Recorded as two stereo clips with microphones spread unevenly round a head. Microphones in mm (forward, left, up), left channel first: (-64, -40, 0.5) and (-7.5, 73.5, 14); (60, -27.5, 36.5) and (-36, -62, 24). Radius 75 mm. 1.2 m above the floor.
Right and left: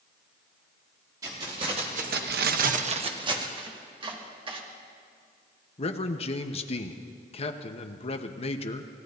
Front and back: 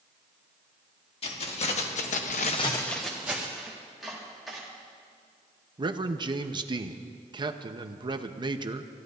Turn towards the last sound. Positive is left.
turn(degrees=-140)